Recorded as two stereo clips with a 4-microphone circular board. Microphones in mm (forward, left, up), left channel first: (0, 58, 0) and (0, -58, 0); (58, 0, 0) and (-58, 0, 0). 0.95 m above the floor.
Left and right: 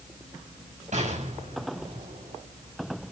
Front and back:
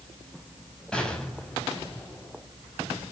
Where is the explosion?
80° right, 6 m.